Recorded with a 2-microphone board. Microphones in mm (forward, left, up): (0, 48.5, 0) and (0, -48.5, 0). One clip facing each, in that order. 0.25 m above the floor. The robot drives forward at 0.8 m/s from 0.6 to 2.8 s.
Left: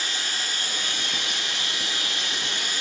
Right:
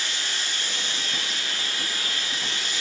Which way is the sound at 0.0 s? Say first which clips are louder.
Left 1 dB; 45° left (ahead or behind).